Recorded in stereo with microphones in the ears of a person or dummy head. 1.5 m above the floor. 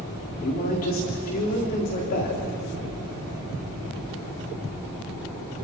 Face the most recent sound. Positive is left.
turn(degrees=45)  # may be behind; listen again after turning